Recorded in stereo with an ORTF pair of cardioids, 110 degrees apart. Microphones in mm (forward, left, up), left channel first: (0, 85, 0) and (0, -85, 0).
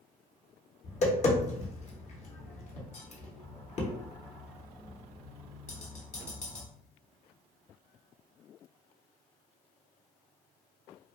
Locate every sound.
0.8 s tapping: 40° left, 1.0 m